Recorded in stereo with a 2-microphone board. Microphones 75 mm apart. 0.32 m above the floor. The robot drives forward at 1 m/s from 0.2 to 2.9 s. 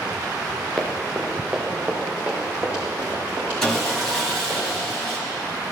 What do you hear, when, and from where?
0.8 s running footsteps: centre (ahead or behind), 3 m; by 4.6 s 30° right (ahead or behind), 6.5 m
3.6 s sawing: 5° left (ahead or behind), 2.5 m